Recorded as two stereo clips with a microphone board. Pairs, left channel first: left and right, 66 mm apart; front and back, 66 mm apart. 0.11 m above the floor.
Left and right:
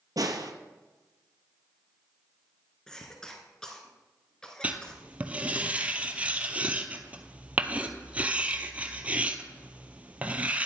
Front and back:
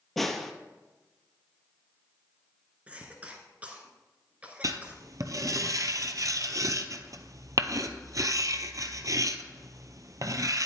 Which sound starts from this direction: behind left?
A cough, at 2.9 s.